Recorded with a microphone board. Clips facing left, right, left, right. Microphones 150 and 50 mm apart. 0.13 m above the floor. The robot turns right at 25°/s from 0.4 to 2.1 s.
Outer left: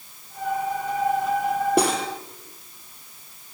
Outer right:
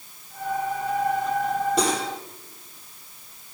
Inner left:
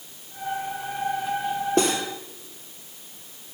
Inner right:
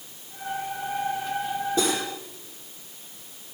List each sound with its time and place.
1.8 s cutlery clinking: 60° left (ahead or behind), 2 m; by 2.1 s 55° left (ahead or behind), 2 m